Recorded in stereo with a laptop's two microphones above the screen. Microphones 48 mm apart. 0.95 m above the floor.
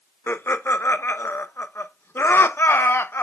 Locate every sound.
0.3 s laughter: 55° left (ahead or behind), 0.7 m